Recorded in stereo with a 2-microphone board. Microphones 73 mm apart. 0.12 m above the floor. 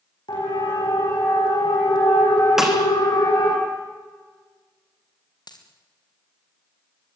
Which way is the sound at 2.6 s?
5° right (ahead or behind).